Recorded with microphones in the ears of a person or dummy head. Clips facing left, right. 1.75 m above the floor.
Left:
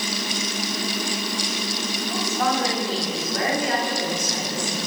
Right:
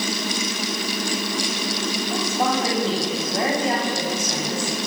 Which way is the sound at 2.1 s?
25° right (ahead or behind).